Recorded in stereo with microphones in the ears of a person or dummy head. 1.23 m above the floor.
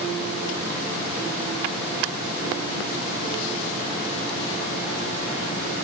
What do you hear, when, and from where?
Only background noise.